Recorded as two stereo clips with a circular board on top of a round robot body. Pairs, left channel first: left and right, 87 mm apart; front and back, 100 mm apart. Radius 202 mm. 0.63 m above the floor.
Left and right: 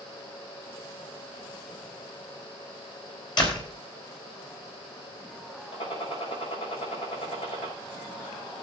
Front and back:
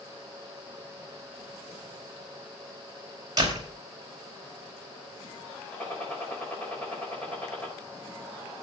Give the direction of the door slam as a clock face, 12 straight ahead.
8 o'clock.